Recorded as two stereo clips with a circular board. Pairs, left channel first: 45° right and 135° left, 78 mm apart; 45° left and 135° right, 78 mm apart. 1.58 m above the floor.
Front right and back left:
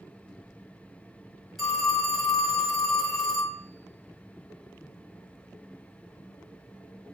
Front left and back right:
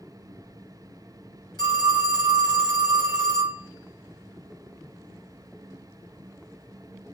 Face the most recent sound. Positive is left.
turn(degrees=45)